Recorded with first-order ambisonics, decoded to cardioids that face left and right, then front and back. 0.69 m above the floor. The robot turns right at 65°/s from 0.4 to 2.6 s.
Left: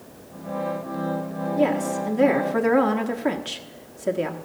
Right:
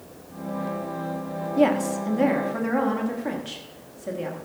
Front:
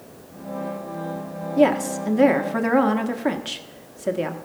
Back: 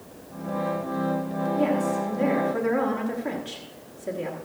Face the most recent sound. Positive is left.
turn(degrees=35)